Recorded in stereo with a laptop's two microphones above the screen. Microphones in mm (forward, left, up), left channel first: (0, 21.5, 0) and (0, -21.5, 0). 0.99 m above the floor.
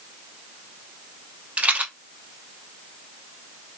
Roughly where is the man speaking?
I don't hear a man speaking.